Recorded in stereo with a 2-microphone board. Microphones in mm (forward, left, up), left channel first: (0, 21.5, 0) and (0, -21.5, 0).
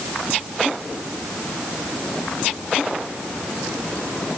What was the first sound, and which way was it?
Only background noise.